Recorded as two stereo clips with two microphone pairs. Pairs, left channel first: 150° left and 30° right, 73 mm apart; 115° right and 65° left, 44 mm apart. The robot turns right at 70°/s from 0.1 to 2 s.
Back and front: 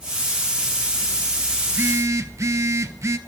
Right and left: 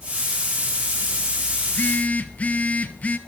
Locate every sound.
1.6 s a phone buzzing: 95° right, 0.6 m; by 3.2 s 70° right, 0.6 m